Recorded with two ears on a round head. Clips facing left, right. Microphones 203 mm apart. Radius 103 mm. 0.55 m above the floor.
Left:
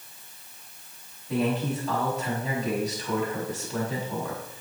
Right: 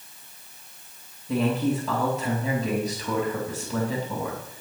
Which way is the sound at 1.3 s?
65° right (ahead or behind).